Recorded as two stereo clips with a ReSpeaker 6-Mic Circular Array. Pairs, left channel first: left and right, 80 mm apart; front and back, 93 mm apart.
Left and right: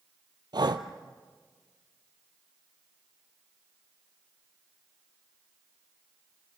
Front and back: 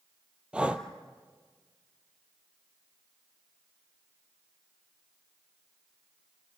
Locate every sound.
0.5 s breathing: 105° right, 1.2 m